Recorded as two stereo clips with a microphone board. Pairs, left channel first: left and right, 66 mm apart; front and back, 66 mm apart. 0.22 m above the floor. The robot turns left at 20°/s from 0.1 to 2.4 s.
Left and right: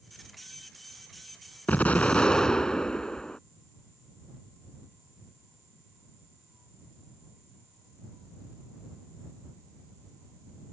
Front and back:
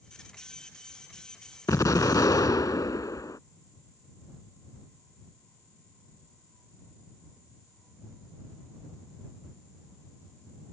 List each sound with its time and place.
1.7 s an explosion: 25° left; by 3.4 s 15° left